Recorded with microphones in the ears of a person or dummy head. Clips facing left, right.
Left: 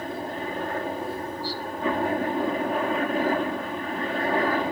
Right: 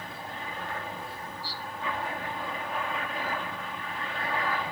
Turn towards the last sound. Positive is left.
turn(degrees=40)  # may be behind; listen again after turning